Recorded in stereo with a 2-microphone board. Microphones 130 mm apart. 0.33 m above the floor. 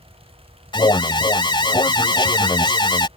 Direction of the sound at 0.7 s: 35° left (ahead or behind).